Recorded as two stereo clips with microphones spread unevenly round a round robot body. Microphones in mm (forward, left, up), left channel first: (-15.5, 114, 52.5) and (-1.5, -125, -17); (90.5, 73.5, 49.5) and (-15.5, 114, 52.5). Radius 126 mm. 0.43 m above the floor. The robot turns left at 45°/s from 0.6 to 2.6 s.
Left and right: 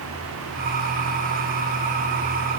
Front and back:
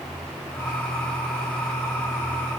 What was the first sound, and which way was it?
Only background noise.